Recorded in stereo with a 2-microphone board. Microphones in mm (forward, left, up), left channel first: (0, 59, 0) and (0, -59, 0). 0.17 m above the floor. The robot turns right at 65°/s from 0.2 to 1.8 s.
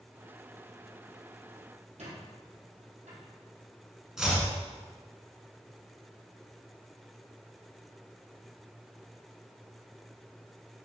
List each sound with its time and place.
2.0 s a squeak: 80° right, 3.5 m
4.2 s chopping: 5° right (ahead or behind), 2 m